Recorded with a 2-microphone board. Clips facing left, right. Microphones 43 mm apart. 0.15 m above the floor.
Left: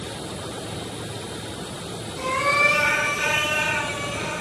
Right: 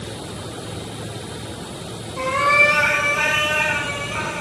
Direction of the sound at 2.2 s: 80° right.